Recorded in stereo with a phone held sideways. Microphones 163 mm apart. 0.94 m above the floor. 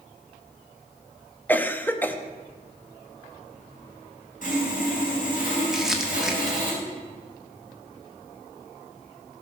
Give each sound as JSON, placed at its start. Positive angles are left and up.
{"t": 1.5, "sound": "a cough", "side_deg": 10, "distance_m": 0.9}
{"t": 4.4, "sound": "sawing", "side_deg": 55, "distance_m": 3.5}
{"t": 5.7, "sound": "crumpling", "side_deg": -5, "distance_m": 1.6}